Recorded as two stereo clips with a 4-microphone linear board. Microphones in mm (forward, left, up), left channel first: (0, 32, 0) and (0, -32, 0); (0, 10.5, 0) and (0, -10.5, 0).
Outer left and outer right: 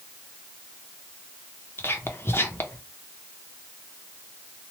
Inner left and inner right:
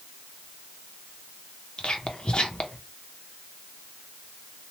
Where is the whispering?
40° left (ahead or behind), 0.6 m.